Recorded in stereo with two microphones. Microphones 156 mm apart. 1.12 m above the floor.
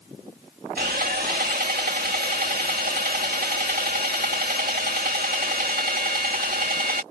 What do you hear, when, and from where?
0.8 s sawing: 70° right (ahead or behind)